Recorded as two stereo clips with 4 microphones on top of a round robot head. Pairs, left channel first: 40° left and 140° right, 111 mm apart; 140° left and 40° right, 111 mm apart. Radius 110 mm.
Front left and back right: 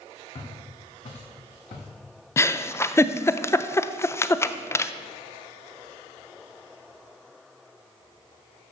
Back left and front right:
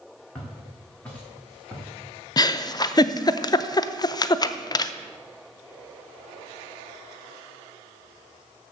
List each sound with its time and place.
0.3 s footsteps: 65° left, 4 m; by 1.9 s 55° left, 3 m
2.4 s a giggle: 100° left, 0.5 m